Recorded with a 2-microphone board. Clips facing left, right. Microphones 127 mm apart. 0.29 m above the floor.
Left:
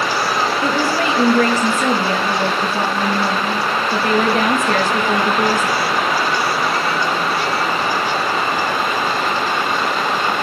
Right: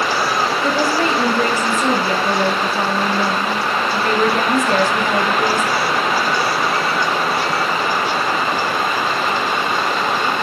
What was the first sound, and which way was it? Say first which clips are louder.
A woman speaking: even; 60° left (ahead or behind).